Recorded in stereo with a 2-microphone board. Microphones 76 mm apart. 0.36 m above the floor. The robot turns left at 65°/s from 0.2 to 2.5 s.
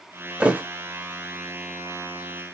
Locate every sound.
0.4 s a thud: 15° right (ahead or behind), 0.6 m; by 0.6 s 25° right (ahead or behind), 0.6 m